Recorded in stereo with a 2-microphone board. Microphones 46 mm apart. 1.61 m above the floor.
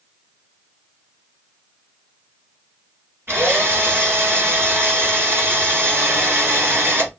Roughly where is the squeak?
No squeak in this recording.